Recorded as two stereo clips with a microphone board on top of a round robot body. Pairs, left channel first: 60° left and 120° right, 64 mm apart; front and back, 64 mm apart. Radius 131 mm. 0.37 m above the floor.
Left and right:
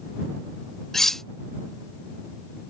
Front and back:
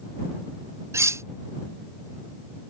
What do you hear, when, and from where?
0.9 s cutlery clinking: 145° left